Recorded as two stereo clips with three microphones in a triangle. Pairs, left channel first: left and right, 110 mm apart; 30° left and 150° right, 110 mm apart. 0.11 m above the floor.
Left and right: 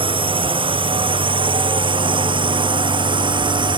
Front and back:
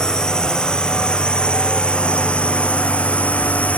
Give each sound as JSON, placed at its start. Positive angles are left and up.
{"t": 0.0, "sound": "a drone", "azimuth_deg": -55}